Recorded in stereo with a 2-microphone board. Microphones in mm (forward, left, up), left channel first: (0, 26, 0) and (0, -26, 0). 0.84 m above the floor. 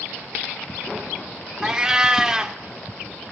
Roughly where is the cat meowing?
Centre.